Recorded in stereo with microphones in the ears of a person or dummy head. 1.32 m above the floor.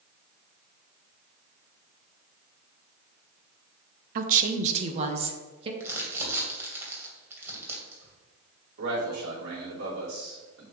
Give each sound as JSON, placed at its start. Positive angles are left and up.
{"t": 4.2, "sound": "a woman speaking", "side_deg": -50, "distance_m": 0.8}
{"t": 5.8, "sound": "crumpling", "side_deg": -15, "distance_m": 2.5}
{"t": 8.8, "sound": "a man speaking", "side_deg": -70, "distance_m": 3.5}